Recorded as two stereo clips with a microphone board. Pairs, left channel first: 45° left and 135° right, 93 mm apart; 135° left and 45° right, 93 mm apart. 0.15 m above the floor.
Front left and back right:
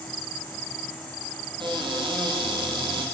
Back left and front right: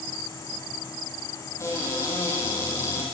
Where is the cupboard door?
165° right, 3 m.